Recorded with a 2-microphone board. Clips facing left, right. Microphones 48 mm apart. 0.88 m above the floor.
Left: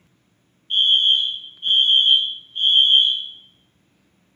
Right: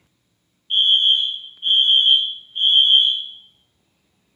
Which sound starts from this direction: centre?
A fire alarm, at 0.7 s.